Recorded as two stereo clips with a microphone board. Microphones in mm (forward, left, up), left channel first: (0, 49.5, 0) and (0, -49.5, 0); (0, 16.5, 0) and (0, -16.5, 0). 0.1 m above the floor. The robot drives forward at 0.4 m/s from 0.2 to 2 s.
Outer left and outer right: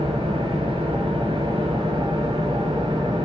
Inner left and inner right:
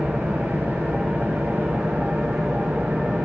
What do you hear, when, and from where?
0.0 s an engine running: 70° right (ahead or behind), 6 m; by 3.3 s 65° right (ahead or behind), 6.5 m